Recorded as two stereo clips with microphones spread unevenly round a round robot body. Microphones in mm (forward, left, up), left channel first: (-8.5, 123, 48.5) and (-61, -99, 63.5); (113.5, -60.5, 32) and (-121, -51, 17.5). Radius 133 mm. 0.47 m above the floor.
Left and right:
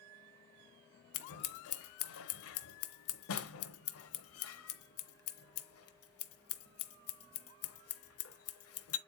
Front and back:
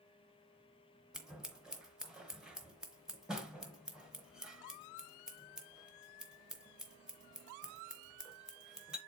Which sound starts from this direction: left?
Scissors, at 1.1 s.